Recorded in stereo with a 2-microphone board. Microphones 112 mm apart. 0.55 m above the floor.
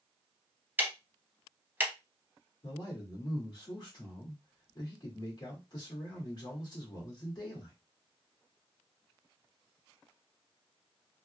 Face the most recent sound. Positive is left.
turn(degrees=40)  # may be behind; listen again after turning